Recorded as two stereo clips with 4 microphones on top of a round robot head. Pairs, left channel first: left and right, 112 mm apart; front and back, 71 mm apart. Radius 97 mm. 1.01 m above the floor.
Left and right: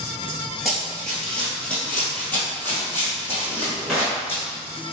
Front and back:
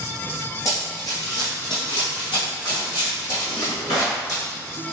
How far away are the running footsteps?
About 1.1 m.